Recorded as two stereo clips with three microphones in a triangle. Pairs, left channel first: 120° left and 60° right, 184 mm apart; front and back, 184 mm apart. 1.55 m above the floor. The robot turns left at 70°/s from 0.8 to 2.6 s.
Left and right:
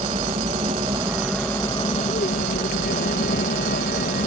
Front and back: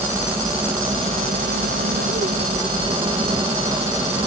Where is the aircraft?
110° right; by 4.3 s 120° left.